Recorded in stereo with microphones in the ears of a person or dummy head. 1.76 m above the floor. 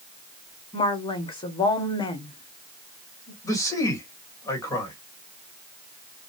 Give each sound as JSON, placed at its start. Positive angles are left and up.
{"t": 0.7, "sound": "a woman speaking", "side_deg": 20, "distance_m": 1.3}
{"t": 3.4, "sound": "a man speaking", "side_deg": 10, "distance_m": 2.5}